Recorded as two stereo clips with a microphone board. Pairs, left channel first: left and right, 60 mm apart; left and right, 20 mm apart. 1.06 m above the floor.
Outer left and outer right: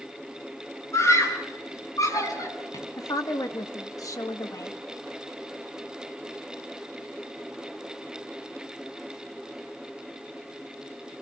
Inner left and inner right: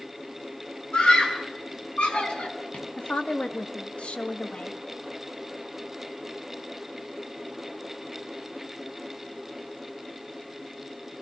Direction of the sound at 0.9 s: 50° left (ahead or behind).